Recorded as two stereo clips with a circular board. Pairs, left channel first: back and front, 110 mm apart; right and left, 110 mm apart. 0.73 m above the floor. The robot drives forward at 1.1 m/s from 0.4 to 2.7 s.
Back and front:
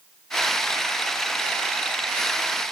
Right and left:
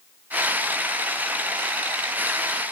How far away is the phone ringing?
No phone ringing in this recording.